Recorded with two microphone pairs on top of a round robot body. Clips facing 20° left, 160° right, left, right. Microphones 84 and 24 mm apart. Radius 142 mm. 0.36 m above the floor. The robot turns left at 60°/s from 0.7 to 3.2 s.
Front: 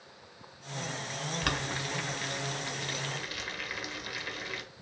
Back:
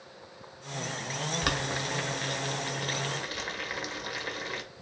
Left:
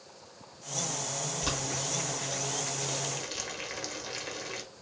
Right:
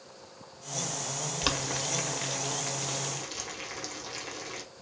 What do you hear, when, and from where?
1.4 s boiling: 85° right, 1.3 m; by 4.6 s 170° left, 1.3 m